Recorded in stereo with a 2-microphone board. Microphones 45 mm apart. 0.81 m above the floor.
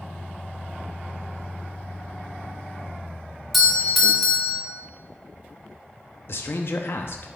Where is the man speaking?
60° left (ahead or behind), 0.7 m.